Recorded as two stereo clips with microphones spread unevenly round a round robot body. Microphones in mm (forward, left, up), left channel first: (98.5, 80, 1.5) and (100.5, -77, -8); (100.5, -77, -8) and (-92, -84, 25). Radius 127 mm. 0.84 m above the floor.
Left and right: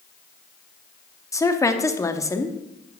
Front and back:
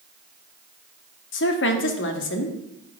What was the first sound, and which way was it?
A woman speaking, 20° left.